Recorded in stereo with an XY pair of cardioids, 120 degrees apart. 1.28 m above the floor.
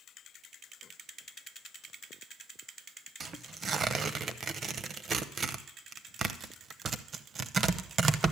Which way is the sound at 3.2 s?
40° right.